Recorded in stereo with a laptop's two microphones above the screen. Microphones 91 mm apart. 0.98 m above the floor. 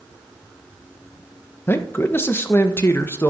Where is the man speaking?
25° left (ahead or behind), 1.0 m.